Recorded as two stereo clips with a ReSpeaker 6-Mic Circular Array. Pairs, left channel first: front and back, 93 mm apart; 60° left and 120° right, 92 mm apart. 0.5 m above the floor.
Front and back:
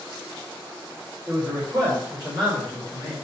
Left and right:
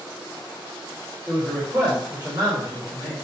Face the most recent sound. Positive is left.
turn(degrees=-100)